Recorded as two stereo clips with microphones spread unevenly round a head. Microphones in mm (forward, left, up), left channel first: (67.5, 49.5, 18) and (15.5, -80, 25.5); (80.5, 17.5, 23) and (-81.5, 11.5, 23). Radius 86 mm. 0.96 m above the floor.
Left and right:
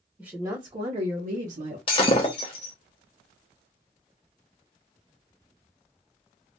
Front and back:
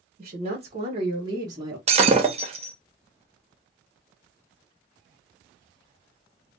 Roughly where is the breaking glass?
Behind left.